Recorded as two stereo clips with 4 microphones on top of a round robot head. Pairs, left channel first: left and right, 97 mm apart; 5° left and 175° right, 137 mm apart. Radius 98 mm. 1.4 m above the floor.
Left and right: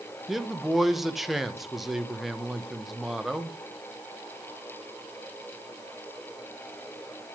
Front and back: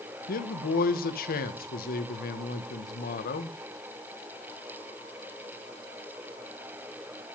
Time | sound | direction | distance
0.3 | a man speaking | straight ahead | 1.6 m